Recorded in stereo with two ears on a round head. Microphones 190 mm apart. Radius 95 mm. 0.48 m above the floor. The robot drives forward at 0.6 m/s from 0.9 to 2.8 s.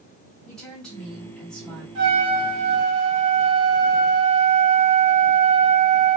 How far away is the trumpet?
About 1.0 m.